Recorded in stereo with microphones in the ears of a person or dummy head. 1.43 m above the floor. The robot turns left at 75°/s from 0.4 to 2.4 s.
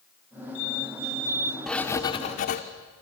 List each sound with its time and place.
1.7 s writing: 175° left, 1.6 m; by 2.6 s 120° left, 1.6 m